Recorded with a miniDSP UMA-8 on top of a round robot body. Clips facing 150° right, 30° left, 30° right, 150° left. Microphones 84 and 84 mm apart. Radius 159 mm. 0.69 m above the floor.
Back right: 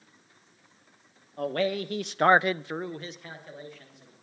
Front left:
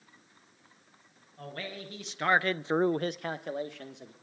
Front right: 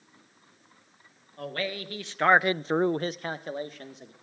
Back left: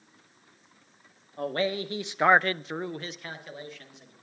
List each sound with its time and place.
1.4 s a man speaking: 150° right, 1.2 m; by 4.1 s 20° left, 1.7 m